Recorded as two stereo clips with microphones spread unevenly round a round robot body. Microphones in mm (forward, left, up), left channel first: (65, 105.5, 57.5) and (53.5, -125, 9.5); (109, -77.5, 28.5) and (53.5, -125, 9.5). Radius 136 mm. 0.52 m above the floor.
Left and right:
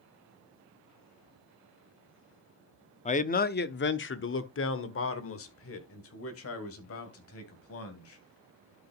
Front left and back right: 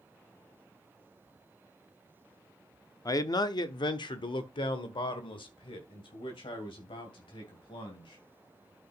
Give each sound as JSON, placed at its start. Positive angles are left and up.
{"t": 3.0, "sound": "a man speaking", "azimuth_deg": 30, "distance_m": 0.8}